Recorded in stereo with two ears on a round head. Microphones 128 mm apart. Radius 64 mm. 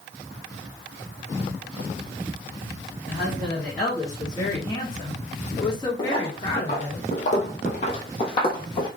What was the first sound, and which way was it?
A woman speaking, 10° left (ahead or behind).